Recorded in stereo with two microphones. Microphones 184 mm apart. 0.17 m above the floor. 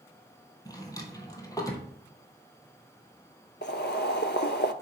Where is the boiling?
65° left (ahead or behind), 0.7 m.